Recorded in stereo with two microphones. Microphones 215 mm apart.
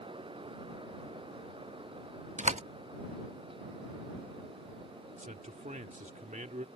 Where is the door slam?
35° right (ahead or behind).